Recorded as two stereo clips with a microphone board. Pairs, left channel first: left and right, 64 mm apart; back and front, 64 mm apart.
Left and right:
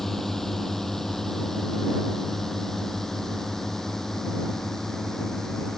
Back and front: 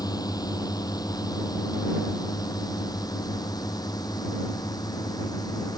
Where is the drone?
175° left.